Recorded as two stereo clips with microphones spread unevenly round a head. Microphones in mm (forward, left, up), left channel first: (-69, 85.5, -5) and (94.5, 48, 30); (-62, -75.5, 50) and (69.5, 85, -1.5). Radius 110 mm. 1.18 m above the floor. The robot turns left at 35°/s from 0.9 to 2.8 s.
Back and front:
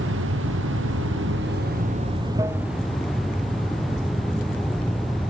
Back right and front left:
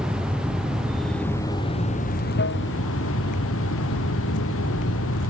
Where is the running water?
35° right; by 5.3 s 105° right.